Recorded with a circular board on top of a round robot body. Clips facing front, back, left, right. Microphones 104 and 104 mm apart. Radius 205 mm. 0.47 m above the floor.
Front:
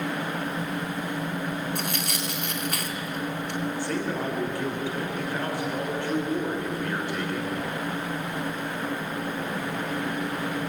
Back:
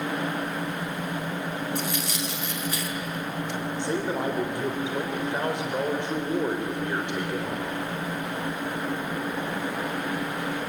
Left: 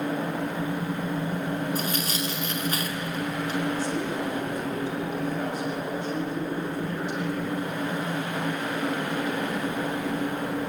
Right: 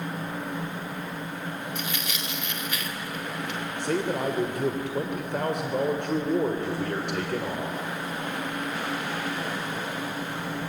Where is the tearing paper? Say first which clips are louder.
Back 1 dB, left 5 dB; 35° left, 4 m.